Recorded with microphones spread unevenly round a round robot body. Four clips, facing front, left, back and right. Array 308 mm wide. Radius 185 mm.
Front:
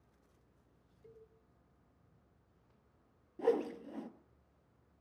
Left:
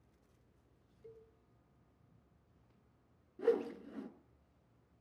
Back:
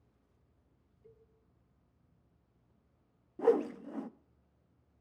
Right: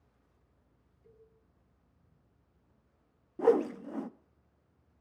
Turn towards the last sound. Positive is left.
turn(degrees=-95)